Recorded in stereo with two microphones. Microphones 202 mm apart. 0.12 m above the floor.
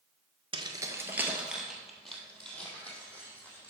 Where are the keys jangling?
25° right (ahead or behind), 1.0 m; by 3.7 s 10° left (ahead or behind), 3.5 m.